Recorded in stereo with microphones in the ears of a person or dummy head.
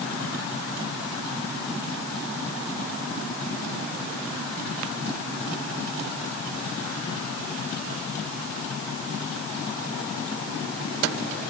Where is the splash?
I don't hear a splash.